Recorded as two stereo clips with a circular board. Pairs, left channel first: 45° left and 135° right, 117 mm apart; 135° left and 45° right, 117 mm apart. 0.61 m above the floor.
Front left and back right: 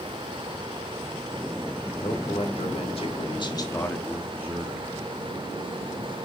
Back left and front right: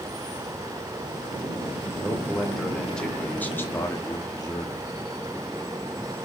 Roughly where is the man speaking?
Ahead left.